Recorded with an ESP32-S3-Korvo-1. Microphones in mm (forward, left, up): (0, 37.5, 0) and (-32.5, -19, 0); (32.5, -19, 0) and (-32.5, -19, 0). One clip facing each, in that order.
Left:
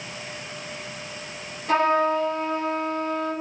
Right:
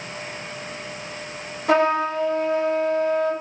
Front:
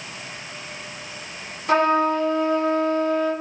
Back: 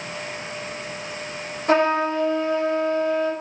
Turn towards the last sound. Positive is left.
turn(degrees=-130)